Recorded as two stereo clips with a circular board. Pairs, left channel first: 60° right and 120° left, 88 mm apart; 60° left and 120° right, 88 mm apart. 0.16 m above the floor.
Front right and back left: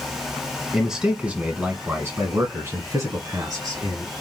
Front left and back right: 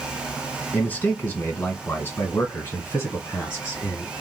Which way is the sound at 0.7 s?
40° left.